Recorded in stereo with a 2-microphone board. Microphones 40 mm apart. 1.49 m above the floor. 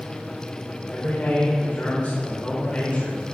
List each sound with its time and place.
0.9 s a man speaking: 40° left (ahead or behind), 5 m